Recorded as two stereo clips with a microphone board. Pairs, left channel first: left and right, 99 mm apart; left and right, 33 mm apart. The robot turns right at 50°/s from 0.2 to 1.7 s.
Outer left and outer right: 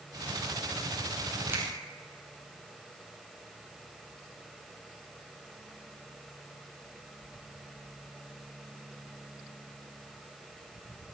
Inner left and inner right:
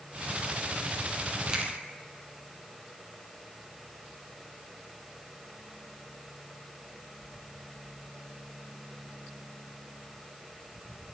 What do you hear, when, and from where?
1.5 s a finger snap: 25° right (ahead or behind), 2.5 m; by 1.6 s 15° right (ahead or behind), 2.5 m